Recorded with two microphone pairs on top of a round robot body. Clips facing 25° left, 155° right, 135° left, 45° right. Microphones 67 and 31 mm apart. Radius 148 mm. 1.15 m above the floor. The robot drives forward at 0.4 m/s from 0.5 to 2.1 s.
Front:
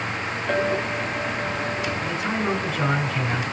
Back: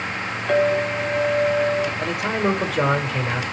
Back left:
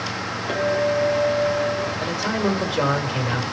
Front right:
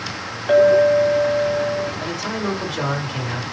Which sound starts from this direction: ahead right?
A clink, at 0.5 s.